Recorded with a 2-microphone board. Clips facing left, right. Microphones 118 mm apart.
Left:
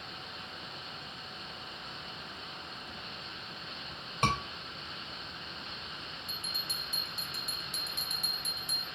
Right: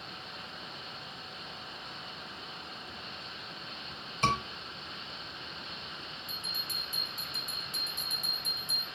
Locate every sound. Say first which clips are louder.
4.2 s a scream: right 1 dB; 50° left (ahead or behind), 3.5 m
6.3 s a bell: even; 70° left (ahead or behind), 1.6 m